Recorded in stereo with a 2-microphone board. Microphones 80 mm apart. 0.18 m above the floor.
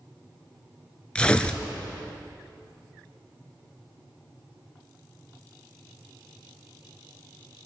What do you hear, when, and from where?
1.1 s tearing paper: 15° left (ahead or behind), 0.9 m